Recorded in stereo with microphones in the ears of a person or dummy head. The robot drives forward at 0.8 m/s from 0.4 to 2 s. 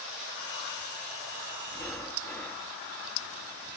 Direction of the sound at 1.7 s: 10° left (ahead or behind).